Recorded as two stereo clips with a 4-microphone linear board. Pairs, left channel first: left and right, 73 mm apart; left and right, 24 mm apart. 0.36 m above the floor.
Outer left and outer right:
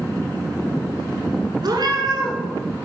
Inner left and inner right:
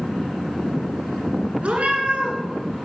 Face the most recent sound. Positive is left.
turn(degrees=-70)  # may be behind; listen again after turning